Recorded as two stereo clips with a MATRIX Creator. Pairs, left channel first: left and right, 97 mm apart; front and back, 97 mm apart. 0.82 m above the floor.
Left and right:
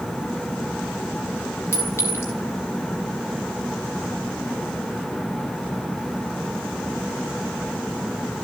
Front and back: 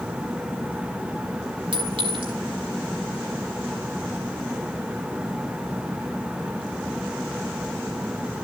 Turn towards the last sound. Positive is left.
turn(degrees=155)